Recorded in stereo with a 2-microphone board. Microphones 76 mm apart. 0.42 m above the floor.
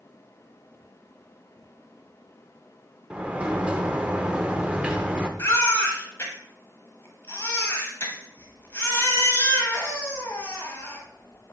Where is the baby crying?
30° left (ahead or behind), 1.2 m.